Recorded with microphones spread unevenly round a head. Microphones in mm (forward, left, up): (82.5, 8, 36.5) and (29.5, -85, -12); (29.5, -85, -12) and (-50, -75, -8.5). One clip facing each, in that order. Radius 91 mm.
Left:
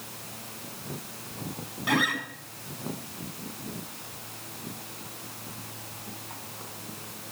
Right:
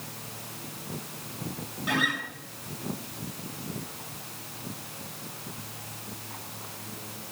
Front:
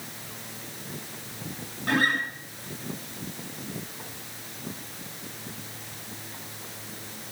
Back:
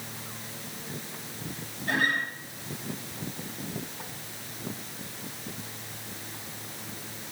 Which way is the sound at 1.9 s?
35° left.